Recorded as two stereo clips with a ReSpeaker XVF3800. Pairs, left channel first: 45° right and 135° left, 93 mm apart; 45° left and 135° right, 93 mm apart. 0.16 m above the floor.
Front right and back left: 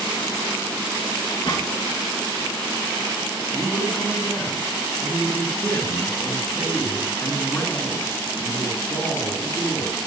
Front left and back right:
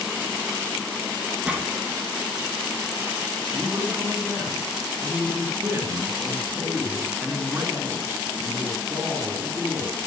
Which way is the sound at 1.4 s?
60° right.